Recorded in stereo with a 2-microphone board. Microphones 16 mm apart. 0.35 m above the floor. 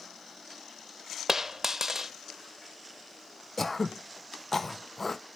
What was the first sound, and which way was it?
A dropped coin, 35° right (ahead or behind).